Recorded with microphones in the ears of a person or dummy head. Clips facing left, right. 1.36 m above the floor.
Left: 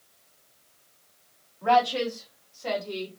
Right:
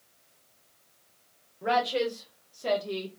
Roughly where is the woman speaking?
Centre.